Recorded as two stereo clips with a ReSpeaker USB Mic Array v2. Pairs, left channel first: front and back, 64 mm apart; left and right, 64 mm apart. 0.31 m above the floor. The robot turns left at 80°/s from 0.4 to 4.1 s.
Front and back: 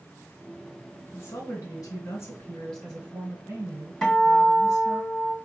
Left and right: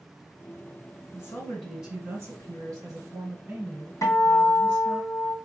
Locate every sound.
1.1 s a woman speaking: 50° left, 2.5 m; by 5.0 s 170° left, 2.5 m
4.0 s a guitar: 80° left, 1.7 m; by 5.3 s 75° left, 1.7 m